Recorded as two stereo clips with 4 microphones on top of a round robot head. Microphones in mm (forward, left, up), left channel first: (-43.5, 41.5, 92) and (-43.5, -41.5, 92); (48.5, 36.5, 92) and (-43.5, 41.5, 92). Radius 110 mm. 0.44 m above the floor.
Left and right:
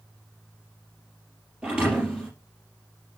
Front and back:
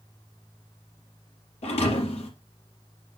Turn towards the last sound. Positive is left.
turn(degrees=-10)